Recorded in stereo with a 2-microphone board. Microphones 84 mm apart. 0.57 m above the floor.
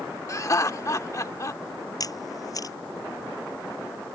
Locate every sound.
0.3 s laughter: 40° left (ahead or behind)
2.0 s a camera shutter: 45° left (ahead or behind)